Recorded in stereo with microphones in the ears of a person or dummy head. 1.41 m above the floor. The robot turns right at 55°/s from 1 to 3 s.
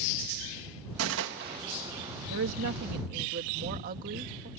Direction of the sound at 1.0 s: 85° right.